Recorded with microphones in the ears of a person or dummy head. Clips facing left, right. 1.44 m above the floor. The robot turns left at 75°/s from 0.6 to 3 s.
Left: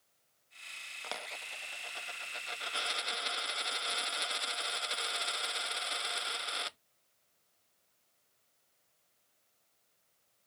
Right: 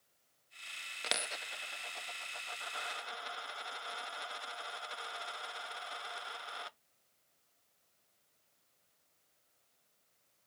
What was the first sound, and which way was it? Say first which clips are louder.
A dropped coin: right 2 dB; 20° right (ahead or behind).